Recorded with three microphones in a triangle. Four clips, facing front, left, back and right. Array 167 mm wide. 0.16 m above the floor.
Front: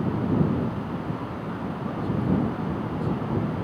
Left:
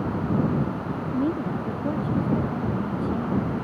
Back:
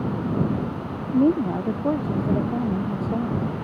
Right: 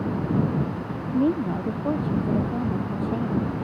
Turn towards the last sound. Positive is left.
turn(degrees=-160)